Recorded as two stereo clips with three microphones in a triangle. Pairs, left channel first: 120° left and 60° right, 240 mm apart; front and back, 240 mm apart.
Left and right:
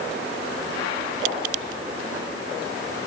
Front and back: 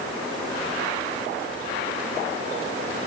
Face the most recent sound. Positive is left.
No sound to turn to.